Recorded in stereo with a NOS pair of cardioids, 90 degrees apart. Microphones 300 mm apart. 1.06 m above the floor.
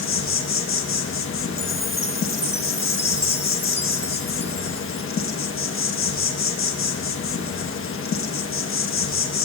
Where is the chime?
20° left, 1.4 m.